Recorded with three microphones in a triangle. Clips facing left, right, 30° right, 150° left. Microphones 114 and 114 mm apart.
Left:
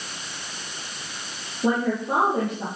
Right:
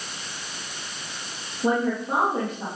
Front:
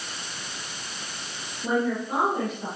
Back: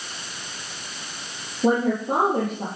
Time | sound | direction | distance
1.6 | a woman speaking | 170° left | 8 m